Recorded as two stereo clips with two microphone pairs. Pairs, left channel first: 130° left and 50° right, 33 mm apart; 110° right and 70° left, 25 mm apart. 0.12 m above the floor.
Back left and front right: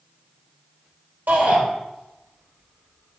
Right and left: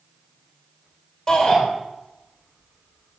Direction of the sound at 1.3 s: 50° right.